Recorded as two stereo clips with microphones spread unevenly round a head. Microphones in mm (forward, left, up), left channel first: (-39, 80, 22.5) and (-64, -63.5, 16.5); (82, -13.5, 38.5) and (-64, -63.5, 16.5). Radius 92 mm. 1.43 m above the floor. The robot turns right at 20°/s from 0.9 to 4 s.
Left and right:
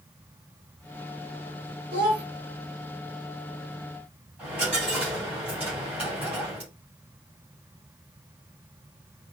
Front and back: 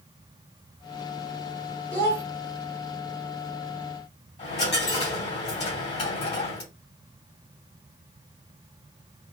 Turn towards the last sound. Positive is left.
turn(degrees=-20)